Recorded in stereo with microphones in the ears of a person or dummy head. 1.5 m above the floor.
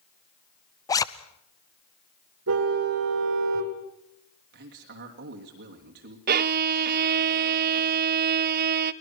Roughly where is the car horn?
Right.